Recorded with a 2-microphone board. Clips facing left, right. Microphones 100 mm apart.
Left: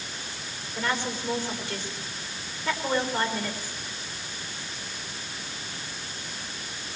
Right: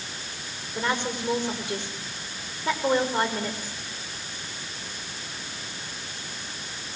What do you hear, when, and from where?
0.8 s a woman speaking: 20° right (ahead or behind), 6 m